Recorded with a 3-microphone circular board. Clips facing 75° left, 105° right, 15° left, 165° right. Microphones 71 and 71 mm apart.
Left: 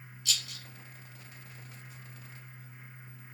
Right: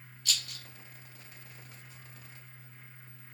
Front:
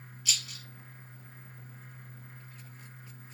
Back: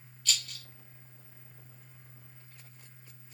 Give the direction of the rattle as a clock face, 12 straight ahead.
2 o'clock.